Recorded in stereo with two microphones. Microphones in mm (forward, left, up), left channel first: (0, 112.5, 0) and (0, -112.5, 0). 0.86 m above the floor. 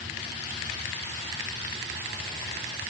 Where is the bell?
No bell in this recording.